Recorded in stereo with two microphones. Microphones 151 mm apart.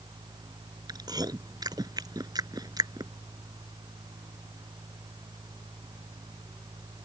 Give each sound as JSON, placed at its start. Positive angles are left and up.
{"t": 0.9, "sound": "chewing", "side_deg": -25}